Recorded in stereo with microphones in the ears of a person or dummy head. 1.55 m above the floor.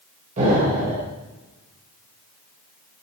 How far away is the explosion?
About 5 m.